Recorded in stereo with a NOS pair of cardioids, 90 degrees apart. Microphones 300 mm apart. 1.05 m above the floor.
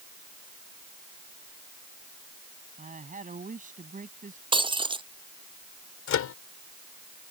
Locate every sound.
2.8 s a woman speaking: 25° right
4.5 s breaking glass: 15° right
6.1 s a microwave: 65° left